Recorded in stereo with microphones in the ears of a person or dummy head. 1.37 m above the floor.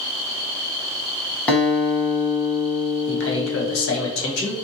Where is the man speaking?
75° left (ahead or behind), 1.2 m.